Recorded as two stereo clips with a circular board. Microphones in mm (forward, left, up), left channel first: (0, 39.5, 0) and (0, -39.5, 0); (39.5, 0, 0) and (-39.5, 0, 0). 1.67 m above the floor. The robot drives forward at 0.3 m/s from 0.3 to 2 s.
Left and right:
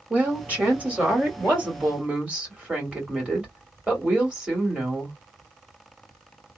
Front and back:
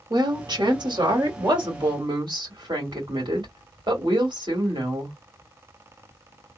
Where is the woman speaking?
160° right, 1.8 m; by 5.2 s 165° right, 2.5 m.